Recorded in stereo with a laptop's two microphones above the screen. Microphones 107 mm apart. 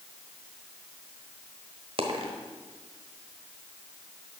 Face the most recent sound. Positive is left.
turn(degrees=-60)  # may be behind; listen again after turning